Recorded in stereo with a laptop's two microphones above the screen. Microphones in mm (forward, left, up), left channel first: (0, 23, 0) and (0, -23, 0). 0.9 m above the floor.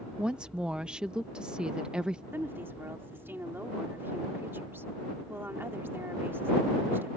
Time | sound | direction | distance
0.2 | a woman speaking | 20° right (ahead or behind) | ?
2.3 | a woman speaking | 60° right (ahead or behind) | ?